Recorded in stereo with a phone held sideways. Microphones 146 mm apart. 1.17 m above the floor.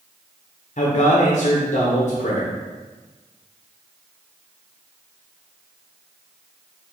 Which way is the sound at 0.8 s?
55° left (ahead or behind).